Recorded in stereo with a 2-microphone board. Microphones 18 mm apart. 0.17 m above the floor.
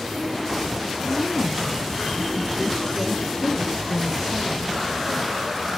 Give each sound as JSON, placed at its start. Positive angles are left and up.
{"t": 1.1, "sound": "a woman speaking", "side_deg": 35, "distance_m": 5.0}